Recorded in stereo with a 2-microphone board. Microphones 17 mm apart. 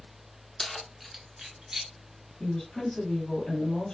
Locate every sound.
0.6 s keys jangling: 15° left (ahead or behind), 0.8 m; by 1.9 s 50° right (ahead or behind), 1.3 m
2.4 s a woman speaking: 40° left (ahead or behind), 3 m